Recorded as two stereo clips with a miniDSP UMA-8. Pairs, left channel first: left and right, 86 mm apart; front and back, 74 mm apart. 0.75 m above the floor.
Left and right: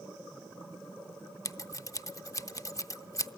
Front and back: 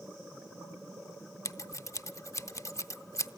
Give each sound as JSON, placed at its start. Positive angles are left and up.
{"t": 1.4, "sound": "scissors", "azimuth_deg": 40, "distance_m": 0.6}